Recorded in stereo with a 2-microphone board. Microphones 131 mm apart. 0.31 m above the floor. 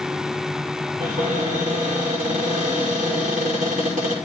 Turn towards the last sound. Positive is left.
turn(degrees=-80)